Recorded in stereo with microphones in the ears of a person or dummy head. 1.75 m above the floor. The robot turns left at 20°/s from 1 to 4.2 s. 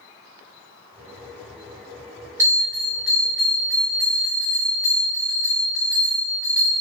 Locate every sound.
2.4 s a bell: 160° right, 1.8 m; by 6.7 s 165° left, 1.8 m